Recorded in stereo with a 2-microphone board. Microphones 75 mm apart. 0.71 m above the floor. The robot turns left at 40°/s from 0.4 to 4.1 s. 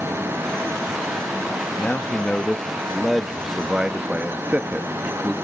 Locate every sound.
1.8 s a man speaking: 25° left (ahead or behind), 0.6 m; by 5.3 s 20° right (ahead or behind), 0.6 m